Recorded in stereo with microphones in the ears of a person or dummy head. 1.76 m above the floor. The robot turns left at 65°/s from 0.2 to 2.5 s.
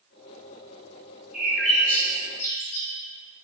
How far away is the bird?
About 1.9 m.